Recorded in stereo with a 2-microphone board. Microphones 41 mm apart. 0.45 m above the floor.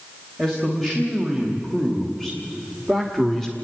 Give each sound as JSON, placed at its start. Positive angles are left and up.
{"t": 0.4, "sound": "a man speaking", "side_deg": 5, "distance_m": 3.0}